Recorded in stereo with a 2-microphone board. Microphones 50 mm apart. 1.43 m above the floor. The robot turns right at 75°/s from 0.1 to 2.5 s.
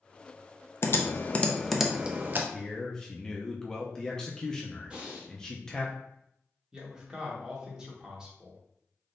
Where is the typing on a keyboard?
60° left (ahead or behind), 0.5 m; by 2.4 s 40° right (ahead or behind), 0.5 m.